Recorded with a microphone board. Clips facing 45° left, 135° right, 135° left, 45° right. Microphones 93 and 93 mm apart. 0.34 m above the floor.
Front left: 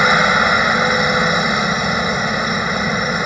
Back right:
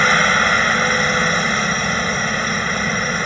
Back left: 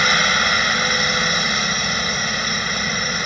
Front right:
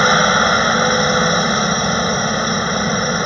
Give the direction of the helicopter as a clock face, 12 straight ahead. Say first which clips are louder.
Front left 2 dB, front right 6 dB; 1 o'clock.